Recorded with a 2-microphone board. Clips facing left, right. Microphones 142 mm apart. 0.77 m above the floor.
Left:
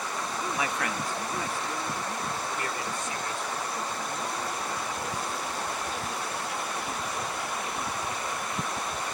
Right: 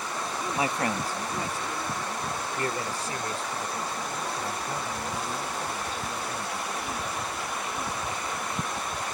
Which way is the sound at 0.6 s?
30° right (ahead or behind).